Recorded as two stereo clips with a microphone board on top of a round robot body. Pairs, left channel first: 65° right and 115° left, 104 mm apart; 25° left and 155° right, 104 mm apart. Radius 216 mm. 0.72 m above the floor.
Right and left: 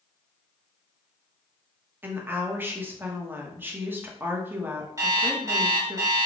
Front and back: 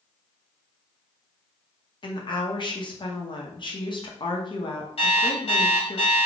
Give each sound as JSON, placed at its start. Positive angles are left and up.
{"t": 2.0, "sound": "a woman speaking", "azimuth_deg": 45, "distance_m": 1.2}
{"t": 5.0, "sound": "an alarm clock", "azimuth_deg": 55, "distance_m": 1.5}